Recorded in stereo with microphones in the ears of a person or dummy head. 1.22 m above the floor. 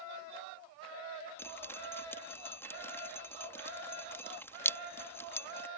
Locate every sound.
1.4 s dripping: 15° left (ahead or behind)